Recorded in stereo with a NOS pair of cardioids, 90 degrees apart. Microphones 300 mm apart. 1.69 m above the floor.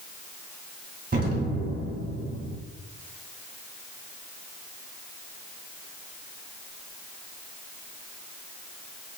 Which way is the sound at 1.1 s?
30° right.